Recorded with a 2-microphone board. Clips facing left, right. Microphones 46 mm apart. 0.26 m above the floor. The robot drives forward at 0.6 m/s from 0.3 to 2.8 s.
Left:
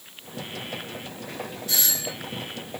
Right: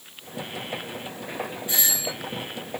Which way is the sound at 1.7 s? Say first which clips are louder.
Even; 20° right (ahead or behind).